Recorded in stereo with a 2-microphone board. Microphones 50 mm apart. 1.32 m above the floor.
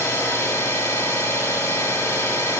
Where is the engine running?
80° left, 3.5 m.